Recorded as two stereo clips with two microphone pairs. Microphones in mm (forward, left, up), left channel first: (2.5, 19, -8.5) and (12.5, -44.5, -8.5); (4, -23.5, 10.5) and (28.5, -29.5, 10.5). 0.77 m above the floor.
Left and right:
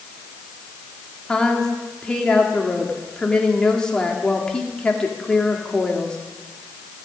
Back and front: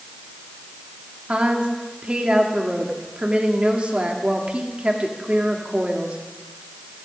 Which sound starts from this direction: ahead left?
A woman speaking, at 1.3 s.